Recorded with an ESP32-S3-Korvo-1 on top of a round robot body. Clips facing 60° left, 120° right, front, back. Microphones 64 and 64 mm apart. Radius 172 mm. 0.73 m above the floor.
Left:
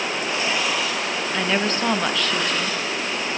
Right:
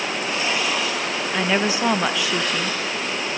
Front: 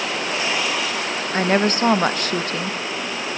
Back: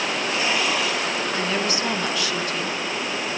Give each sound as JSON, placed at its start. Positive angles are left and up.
{"t": 1.3, "sound": "a woman speaking", "azimuth_deg": -40, "distance_m": 1.1}